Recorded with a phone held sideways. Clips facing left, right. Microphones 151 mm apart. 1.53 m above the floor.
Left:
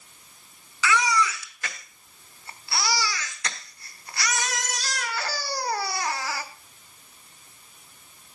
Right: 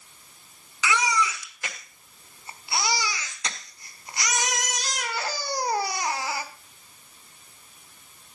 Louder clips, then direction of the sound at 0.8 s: Left 2 dB; 20° right (ahead or behind).